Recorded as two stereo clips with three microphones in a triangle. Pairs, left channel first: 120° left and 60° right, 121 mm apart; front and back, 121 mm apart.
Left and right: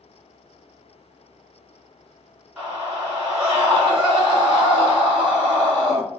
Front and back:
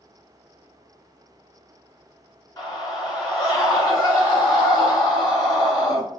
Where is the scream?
20° left, 1.8 m.